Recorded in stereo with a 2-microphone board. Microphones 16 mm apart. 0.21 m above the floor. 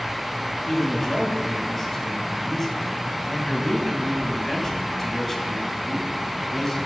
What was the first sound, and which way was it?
A man speaking, 15° left (ahead or behind).